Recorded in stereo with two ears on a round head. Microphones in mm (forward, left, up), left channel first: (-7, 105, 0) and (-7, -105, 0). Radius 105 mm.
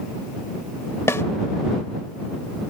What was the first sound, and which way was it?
A snare drum, 10° left (ahead or behind).